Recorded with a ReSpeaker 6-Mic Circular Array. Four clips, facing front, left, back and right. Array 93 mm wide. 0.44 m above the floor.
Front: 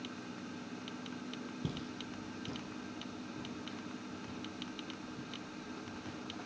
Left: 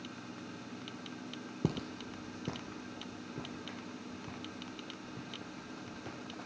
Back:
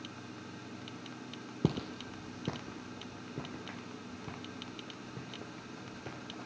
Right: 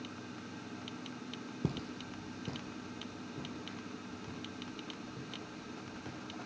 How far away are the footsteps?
About 0.7 m.